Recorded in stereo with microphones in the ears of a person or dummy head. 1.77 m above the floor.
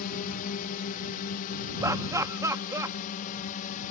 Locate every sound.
0.0 s a drone: 45° left (ahead or behind)
1.8 s laughter: 15° right (ahead or behind)